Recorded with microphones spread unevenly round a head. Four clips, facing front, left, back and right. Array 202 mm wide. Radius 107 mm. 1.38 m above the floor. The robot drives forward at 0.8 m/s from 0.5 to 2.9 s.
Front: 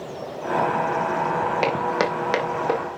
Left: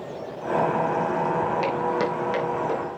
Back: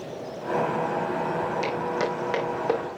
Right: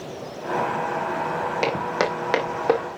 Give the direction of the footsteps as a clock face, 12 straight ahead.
1 o'clock.